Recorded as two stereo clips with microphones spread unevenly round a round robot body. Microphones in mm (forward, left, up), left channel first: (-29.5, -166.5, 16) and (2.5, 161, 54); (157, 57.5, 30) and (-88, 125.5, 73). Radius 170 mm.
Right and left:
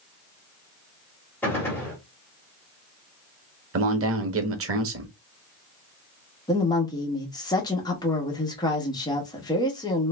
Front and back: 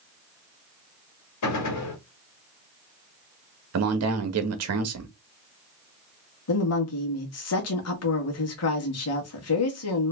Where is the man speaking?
135° left, 1.1 m.